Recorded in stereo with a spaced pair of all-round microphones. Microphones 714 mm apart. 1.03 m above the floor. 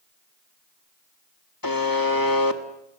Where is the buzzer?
30° left (ahead or behind), 1.6 m.